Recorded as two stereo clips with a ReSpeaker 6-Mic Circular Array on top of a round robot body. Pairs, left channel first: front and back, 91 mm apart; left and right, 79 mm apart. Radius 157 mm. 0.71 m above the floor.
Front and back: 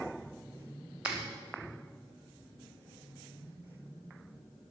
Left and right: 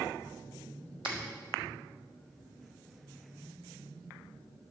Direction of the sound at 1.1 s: 100° right.